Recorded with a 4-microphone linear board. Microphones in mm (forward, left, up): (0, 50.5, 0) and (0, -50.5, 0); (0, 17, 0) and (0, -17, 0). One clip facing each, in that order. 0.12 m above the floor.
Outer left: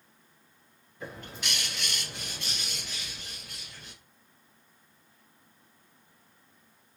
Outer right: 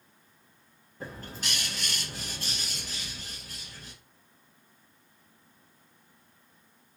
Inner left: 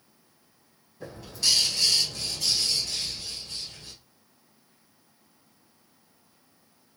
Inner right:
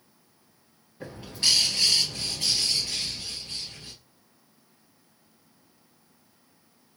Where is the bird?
40° right (ahead or behind), 1.7 m.